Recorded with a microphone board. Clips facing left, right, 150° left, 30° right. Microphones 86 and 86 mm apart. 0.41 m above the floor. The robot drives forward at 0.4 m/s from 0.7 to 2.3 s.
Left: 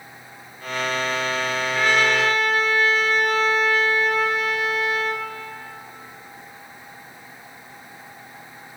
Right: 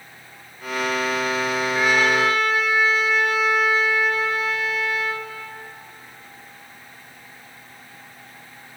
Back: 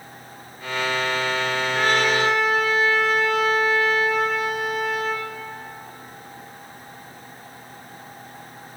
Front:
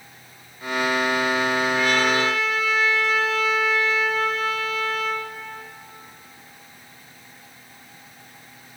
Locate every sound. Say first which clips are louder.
1.8 s a trumpet: even, back 4 dB; 170° right, 1.6 m